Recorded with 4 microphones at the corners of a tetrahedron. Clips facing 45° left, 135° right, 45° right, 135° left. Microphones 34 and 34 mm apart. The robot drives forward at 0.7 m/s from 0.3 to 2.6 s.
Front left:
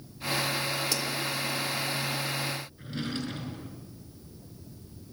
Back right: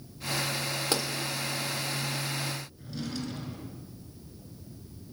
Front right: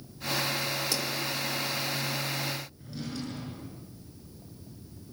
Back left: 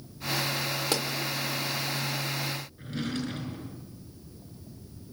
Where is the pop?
175° left, 3.5 m.